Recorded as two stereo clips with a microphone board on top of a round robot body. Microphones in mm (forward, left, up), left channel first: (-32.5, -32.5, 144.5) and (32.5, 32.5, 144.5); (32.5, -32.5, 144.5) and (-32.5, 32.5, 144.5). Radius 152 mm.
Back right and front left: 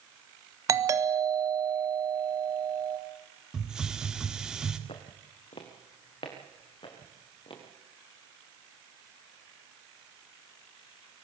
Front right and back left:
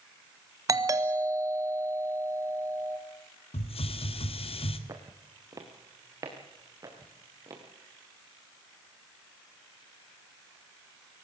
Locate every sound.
0.7 s a doorbell: 90° left, 2 m
3.5 s a hiss: 40° right, 1.6 m
4.9 s footsteps: 165° right, 2 m; by 7.6 s 170° right, 5.5 m